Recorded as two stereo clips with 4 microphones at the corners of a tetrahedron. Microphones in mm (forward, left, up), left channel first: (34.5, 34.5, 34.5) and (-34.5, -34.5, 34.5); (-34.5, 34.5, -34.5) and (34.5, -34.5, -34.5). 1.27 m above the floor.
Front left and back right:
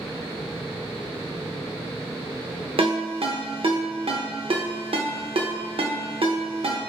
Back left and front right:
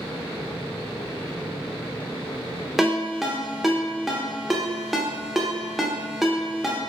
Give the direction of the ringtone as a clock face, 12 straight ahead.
4 o'clock.